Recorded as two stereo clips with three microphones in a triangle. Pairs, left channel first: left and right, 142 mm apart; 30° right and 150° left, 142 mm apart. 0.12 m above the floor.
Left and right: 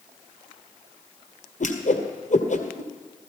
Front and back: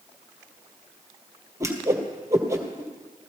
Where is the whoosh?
85° left, 1.7 m.